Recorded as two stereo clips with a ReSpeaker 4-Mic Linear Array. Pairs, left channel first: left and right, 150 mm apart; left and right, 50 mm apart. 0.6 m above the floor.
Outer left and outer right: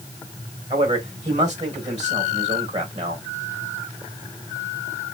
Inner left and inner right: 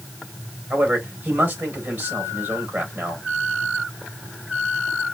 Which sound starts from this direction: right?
A man speaking, at 0.7 s.